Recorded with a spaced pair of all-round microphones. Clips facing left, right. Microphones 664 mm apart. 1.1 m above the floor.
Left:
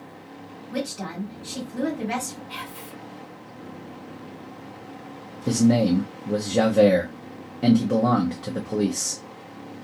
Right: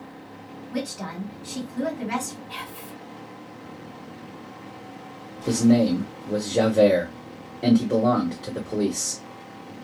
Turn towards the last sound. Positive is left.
turn(degrees=40)  # may be behind; listen again after turning